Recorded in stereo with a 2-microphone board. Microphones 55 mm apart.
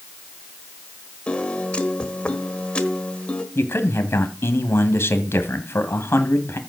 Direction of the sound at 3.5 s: 50° left (ahead or behind).